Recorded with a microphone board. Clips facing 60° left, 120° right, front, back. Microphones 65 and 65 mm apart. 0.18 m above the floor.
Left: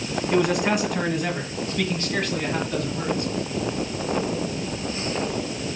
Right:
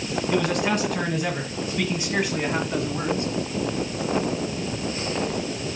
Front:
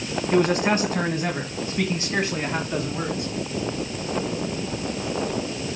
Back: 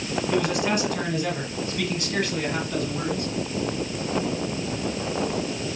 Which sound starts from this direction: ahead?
A man speaking, at 0.3 s.